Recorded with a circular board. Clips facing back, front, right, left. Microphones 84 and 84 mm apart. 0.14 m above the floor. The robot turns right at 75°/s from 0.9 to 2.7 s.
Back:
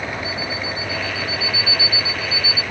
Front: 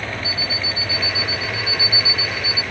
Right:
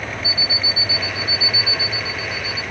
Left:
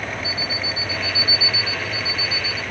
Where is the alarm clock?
10° right; by 2.6 s 115° left.